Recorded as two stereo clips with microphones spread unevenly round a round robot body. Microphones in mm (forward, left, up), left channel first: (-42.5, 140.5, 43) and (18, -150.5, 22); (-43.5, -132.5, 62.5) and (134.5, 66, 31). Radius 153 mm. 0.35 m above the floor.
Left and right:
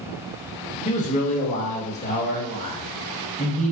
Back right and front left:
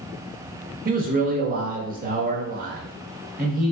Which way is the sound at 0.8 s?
45° left.